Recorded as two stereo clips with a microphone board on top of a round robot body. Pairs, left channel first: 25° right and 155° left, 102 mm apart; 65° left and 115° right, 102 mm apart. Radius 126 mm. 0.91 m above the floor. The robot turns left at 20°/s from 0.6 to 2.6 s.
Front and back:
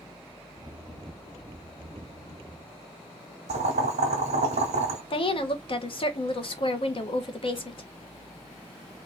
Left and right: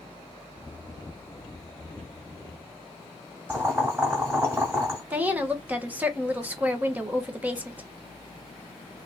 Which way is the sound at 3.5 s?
175° left.